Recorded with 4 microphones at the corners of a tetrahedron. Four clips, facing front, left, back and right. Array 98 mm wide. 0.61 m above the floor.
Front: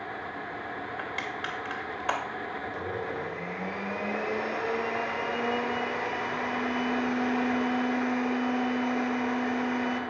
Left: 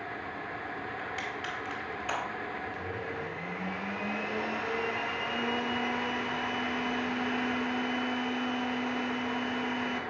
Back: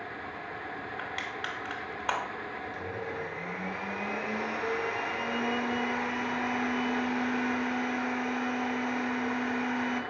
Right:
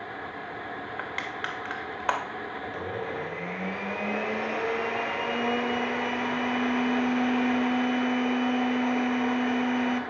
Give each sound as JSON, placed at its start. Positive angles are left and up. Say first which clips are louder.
{"t": 1.0, "sound": "crushing", "louder": "right 3 dB, front 1 dB", "azimuth_deg": -90, "distance_m": 2.5}
{"t": 2.6, "sound": "a blender", "louder": "right 4 dB, front 4 dB", "azimuth_deg": -70, "distance_m": 3.0}